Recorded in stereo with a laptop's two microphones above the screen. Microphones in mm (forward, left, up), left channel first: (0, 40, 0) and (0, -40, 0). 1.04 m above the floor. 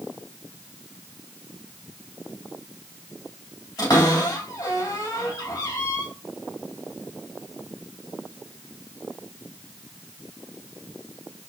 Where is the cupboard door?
50° left (ahead or behind), 2.5 m.